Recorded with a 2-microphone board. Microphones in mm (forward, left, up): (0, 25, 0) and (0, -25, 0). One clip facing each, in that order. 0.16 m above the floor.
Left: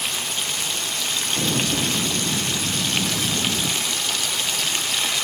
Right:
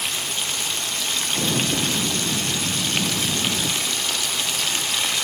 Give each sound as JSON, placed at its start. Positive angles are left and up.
{"t": 1.3, "sound": "an explosion", "side_deg": -5, "distance_m": 2.5}